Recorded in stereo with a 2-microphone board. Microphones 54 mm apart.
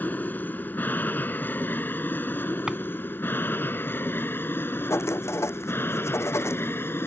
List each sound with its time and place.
0.0 s an aircraft: 35° left (ahead or behind); by 7.1 s 45° left (ahead or behind)
2.7 s a drawer: 15° right (ahead or behind)
4.9 s writing: 60° left (ahead or behind)